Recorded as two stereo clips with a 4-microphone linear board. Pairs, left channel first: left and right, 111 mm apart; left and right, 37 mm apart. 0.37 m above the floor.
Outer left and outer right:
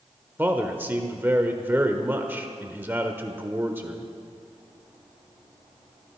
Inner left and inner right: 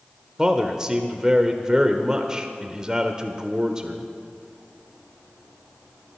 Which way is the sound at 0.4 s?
20° right (ahead or behind).